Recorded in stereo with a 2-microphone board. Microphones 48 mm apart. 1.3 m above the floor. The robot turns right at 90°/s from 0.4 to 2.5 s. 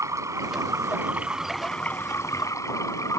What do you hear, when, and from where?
0.0 s running water: 100° right; by 3.2 s 90° left